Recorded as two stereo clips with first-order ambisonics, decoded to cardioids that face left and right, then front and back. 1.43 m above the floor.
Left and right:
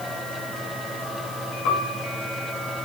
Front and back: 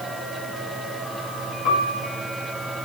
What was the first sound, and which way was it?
A piano, 50° left.